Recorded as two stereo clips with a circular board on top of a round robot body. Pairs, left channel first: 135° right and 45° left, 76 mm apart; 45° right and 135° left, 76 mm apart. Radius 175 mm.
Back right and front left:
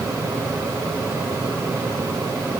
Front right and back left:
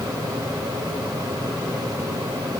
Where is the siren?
No siren in this recording.